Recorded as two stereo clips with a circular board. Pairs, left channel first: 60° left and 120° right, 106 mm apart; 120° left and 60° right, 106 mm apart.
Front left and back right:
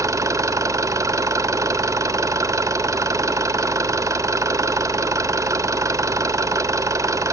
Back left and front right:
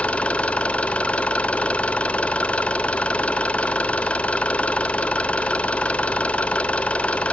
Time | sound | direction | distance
0.0 | an engine running | 170° right | 1.2 m